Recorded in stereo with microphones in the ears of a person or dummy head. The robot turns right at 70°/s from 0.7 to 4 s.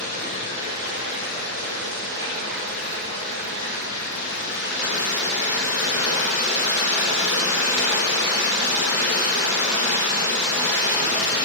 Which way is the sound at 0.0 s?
145° right.